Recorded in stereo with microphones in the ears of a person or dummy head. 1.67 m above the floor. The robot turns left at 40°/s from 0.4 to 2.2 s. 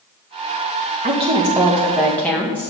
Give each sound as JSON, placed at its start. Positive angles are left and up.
{"t": 1.0, "sound": "a woman speaking", "azimuth_deg": -145, "distance_m": 1.1}